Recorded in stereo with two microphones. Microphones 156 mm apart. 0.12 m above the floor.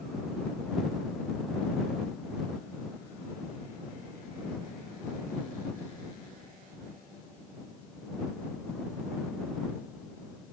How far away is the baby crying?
I don't hear a baby crying.